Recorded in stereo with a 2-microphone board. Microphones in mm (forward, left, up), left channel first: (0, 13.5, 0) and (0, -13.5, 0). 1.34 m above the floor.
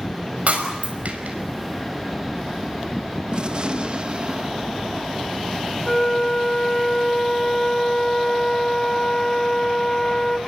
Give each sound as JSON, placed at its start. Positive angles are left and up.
{"t": 0.5, "sound": "breaking glass", "side_deg": -65, "distance_m": 5.0}
{"t": 3.3, "sound": "a gunshot", "side_deg": -35, "distance_m": 1.1}
{"t": 5.8, "sound": "a flute", "side_deg": 20, "distance_m": 1.6}